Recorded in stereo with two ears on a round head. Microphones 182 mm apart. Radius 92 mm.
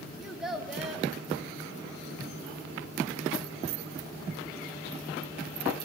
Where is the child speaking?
Centre (ahead or behind), 0.7 m.